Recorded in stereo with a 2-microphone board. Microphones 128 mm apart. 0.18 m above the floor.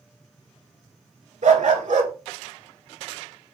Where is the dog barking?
65° right (ahead or behind), 0.5 m.